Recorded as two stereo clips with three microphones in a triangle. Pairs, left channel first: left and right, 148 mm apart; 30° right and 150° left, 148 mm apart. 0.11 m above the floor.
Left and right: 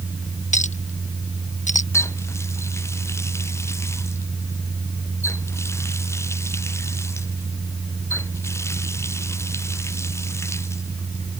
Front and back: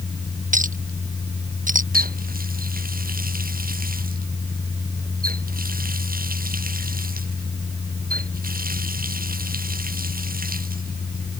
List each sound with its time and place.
0.5 s a clink: 125° left
1.9 s a running tap: 160° left